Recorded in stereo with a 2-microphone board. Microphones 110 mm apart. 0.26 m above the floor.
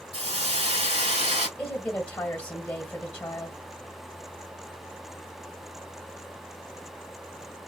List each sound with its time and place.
0.1 s a hiss: 75° right (ahead or behind), 3 m
1.6 s a woman speaking: 15° left (ahead or behind), 1.5 m